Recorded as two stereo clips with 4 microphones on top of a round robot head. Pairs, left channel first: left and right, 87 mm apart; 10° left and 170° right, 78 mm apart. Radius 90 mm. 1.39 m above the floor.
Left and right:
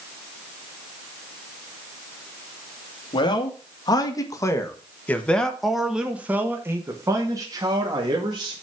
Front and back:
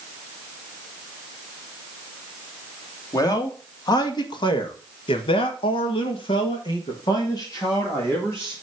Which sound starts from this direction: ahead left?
A man speaking, at 3.1 s.